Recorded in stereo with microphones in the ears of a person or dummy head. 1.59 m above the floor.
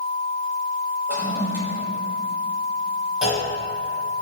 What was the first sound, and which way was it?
A toilet flushing, 15° right (ahead or behind).